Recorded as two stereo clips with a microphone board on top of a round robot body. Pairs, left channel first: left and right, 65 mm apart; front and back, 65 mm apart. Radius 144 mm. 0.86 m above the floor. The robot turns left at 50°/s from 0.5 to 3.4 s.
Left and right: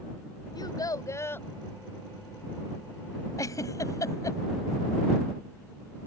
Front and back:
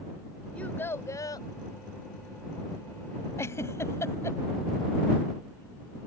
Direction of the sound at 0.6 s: 75° left.